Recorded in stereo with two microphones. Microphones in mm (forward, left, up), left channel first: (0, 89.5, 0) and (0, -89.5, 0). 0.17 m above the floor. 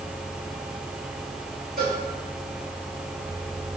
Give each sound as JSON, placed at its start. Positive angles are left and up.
{"t": 1.8, "sound": "a cowbell", "side_deg": -55, "distance_m": 3.5}